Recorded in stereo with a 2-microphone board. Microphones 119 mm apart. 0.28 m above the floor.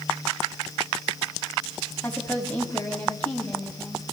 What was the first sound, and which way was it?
A woman speaking, 15° left (ahead or behind).